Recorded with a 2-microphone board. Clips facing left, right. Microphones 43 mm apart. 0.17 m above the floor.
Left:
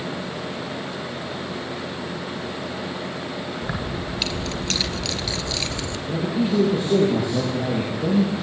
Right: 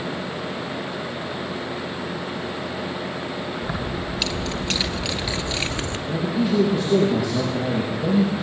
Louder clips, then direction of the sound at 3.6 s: Right 1 dB; 15° left (ahead or behind).